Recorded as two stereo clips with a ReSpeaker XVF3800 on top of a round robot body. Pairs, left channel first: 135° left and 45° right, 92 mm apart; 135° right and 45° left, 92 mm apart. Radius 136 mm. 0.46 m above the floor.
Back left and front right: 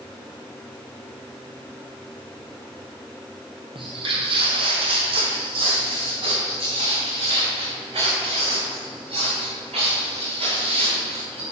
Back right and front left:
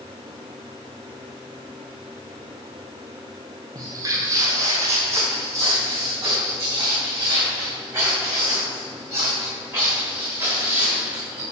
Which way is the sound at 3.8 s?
10° right.